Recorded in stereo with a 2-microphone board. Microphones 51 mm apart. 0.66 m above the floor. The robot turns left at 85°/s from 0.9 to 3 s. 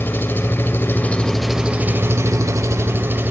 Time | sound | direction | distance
0.0 | an engine running | 45° left | 1.2 m